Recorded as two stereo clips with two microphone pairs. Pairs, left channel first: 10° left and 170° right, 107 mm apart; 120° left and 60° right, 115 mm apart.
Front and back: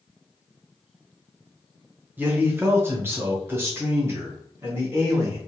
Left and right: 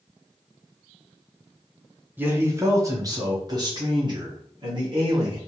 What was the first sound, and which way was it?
A man speaking, 110° right.